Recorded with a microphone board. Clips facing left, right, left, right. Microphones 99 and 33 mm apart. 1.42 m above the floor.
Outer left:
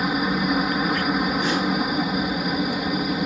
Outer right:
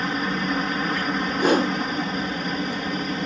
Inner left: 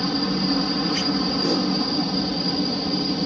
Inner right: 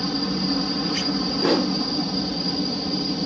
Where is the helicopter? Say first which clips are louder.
Outer left 3 dB, inner left 2 dB; 10° left (ahead or behind).